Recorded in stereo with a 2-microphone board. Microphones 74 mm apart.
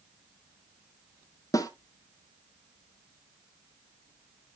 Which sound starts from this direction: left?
A snare drum, at 1.5 s.